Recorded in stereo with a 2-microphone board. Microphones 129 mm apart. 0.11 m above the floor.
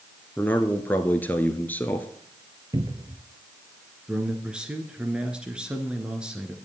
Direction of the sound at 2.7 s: 30° right (ahead or behind).